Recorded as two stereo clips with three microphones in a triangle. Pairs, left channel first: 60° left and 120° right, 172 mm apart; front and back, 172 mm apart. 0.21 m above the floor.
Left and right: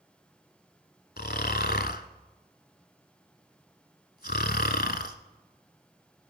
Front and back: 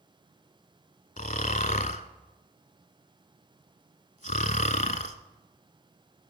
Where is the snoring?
40° left, 0.9 m.